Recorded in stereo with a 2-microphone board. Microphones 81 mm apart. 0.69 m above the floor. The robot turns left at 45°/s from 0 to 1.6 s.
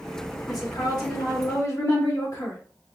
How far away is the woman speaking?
About 1.7 m.